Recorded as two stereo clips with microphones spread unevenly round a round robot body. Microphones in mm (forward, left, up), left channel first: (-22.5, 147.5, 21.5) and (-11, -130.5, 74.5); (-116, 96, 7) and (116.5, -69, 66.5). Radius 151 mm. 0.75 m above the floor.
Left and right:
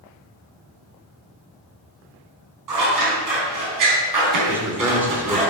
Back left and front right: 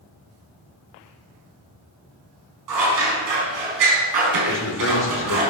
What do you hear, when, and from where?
2.7 s scissors: 65° right, 4.5 m
4.5 s a man speaking: 175° right, 3 m